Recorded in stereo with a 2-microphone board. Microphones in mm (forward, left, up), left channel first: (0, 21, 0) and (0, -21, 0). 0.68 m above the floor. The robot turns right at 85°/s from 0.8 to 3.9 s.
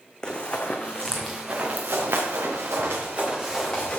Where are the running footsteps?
20° left (ahead or behind), 1.8 m; by 4.0 s 25° left (ahead or behind), 5.5 m.